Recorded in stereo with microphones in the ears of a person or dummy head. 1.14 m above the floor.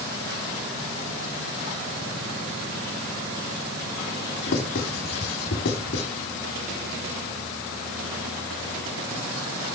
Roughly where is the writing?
Left.